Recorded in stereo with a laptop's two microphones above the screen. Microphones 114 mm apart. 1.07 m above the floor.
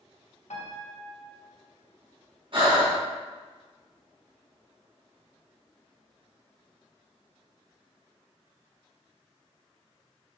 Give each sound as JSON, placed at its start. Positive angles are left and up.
{"t": 0.5, "sound": "a piano", "side_deg": 85, "distance_m": 0.9}
{"t": 2.5, "sound": "breathing", "side_deg": -55, "distance_m": 1.8}